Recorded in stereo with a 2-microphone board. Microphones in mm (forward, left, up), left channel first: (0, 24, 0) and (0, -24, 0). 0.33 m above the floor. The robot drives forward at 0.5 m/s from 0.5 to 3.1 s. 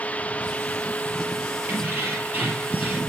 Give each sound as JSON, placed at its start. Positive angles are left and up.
{"t": 1.7, "sound": "keys jangling", "side_deg": -45, "distance_m": 4.5}